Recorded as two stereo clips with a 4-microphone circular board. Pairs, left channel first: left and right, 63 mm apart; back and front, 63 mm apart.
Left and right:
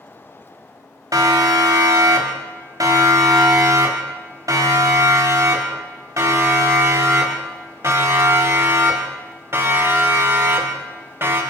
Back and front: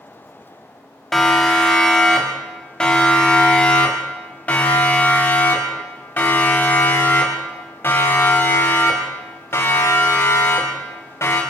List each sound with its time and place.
1.1 s a siren: 95° right, 5.5 m; by 11.4 s 135° right, 9 m